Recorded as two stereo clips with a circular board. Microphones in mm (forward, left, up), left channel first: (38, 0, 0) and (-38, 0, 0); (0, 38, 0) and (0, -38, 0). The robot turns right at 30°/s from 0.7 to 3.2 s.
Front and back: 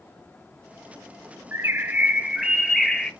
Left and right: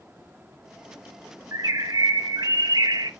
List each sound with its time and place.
1.5 s a bird: 125° right, 0.6 m; by 3.1 s 80° right, 0.6 m